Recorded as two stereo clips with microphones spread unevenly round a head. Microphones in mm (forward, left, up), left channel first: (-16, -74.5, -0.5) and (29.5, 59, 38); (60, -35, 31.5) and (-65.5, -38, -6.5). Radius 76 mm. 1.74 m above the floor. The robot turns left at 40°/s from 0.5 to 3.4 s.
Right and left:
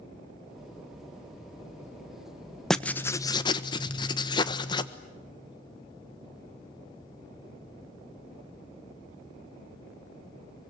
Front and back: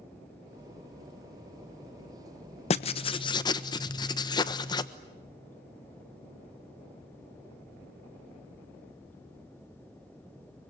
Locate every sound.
2.7 s writing: 15° right, 1.3 m; by 4.9 s 40° right, 1.3 m